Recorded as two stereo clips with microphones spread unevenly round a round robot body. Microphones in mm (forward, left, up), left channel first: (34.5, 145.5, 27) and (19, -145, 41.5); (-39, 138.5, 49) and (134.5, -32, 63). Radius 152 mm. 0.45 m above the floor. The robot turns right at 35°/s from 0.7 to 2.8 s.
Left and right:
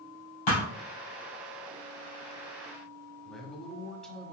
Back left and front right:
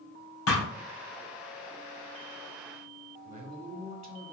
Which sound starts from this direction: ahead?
A man speaking, at 3.2 s.